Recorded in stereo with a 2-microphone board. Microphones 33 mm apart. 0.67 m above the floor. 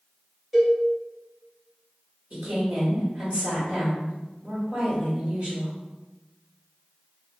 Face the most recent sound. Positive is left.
turn(degrees=-45)  # may be behind; listen again after turning